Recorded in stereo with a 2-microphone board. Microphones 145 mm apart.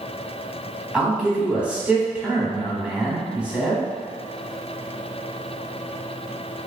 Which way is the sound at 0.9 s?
5° right (ahead or behind).